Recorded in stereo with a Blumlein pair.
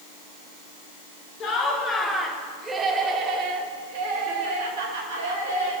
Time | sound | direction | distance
1.4 | laughter | 30° left | 2.5 m